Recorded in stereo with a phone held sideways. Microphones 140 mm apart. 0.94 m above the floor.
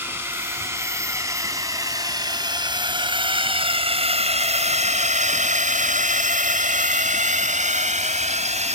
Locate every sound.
0.0 s a drone: 15° right (ahead or behind); by 8.8 s 55° right (ahead or behind)